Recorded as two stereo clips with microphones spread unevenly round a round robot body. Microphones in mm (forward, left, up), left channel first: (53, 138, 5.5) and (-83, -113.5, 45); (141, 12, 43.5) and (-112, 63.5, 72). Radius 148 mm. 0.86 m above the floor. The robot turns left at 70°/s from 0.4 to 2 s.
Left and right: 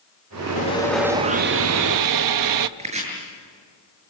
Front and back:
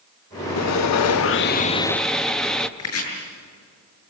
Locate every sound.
0.6 s sawing: 5° left, 0.8 m; by 2.7 s 95° right, 0.8 m
2.8 s chopping: 50° right, 7.5 m